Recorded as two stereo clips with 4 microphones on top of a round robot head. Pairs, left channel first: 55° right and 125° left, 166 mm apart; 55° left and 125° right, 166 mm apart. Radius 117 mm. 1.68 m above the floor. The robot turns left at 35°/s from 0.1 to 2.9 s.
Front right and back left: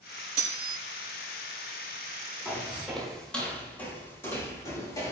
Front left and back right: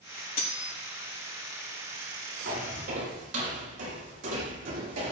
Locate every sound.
0.4 s cutlery clinking: 95° left, 4.5 m; by 0.8 s 80° left, 4.5 m
2.5 s footsteps: 130° right, 5 m; by 5.1 s 120° right, 5.5 m